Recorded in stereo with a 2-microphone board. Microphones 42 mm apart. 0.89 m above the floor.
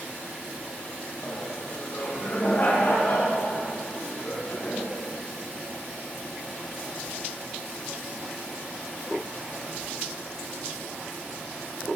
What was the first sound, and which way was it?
Laughter, 50° left (ahead or behind).